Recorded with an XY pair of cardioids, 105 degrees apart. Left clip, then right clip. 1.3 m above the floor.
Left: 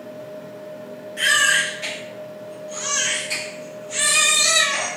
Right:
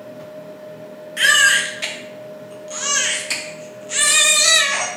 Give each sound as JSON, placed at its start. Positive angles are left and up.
{"t": 1.2, "sound": "a baby crying", "azimuth_deg": -65, "distance_m": 0.5}